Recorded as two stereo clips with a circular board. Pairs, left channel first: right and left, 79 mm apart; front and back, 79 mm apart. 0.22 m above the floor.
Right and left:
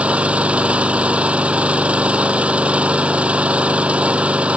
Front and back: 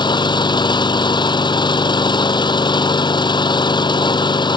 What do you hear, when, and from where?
0.0 s an engine running: 15° left